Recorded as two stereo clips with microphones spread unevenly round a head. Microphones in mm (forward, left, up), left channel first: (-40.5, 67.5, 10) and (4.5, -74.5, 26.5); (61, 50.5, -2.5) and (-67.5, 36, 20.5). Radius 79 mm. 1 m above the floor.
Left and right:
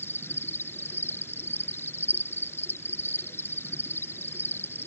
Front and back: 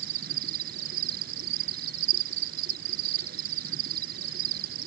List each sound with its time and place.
0.0 s an insect: 175° right